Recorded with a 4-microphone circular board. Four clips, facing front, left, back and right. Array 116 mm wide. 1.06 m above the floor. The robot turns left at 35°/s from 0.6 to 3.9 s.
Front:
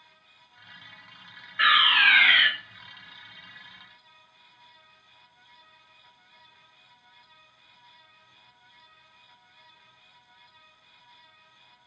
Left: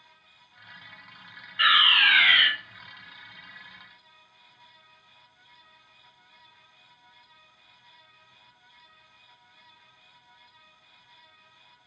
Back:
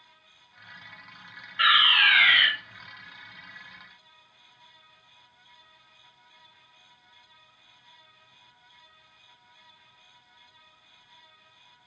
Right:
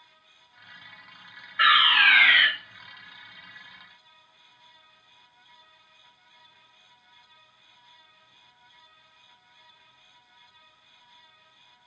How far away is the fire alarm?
About 1.2 m.